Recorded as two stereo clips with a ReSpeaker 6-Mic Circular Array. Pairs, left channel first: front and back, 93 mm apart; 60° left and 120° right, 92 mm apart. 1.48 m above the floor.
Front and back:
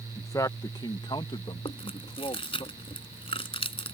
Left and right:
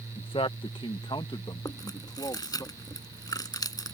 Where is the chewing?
15° left.